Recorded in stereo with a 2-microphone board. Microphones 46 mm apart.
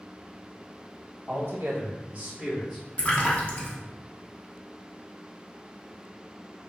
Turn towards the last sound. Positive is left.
turn(degrees=25)  # may be behind; listen again after turning